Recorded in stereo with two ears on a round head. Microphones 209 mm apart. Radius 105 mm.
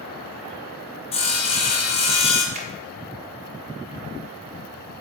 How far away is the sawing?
About 0.6 m.